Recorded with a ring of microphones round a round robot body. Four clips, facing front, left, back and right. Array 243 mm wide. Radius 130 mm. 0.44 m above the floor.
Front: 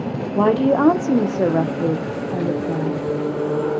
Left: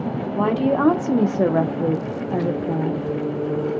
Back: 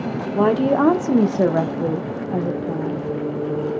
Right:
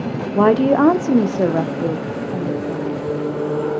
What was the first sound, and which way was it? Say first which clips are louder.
A woman speaking: right 6 dB, front 1 dB; 90° right.